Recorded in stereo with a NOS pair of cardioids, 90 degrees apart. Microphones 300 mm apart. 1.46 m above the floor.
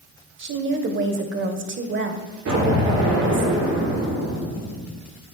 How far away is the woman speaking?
About 1.1 m.